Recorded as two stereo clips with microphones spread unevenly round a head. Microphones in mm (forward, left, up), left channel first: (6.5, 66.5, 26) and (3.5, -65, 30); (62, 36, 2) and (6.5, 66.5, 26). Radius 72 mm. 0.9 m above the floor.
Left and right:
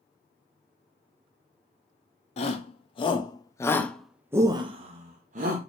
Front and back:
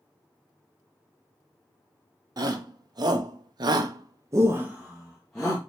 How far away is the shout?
About 1.3 m.